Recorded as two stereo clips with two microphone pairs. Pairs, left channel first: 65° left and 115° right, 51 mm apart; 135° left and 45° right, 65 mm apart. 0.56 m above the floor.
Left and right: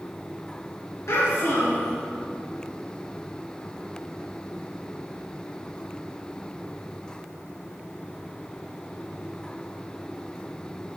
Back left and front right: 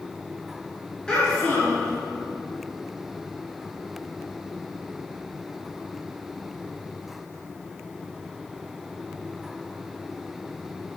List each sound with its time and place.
1.1 s a child speaking: 55° left, 4 m